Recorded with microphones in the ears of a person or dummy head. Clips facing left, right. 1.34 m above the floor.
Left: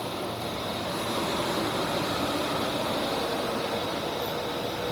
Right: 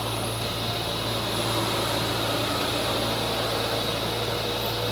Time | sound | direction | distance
0.0 | a fan | 50° right (ahead or behind) | 3 m